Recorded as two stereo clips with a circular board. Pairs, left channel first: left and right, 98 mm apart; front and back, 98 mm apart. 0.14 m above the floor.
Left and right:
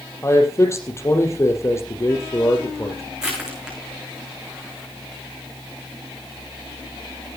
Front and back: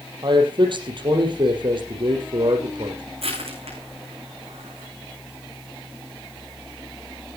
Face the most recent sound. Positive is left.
turn(degrees=-175)